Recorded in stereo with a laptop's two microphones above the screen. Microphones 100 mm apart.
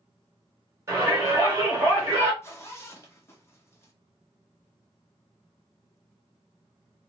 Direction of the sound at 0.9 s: 25° right (ahead or behind).